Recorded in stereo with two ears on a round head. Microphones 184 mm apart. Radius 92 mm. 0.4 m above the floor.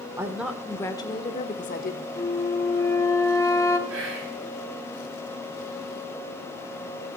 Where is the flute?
15° left (ahead or behind), 0.9 m.